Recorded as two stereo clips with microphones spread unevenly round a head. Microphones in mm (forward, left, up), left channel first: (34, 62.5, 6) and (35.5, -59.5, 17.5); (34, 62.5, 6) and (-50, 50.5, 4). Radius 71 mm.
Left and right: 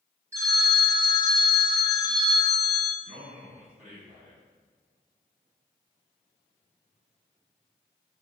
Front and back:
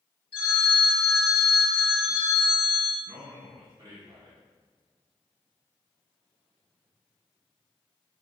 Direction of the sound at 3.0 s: 130° right.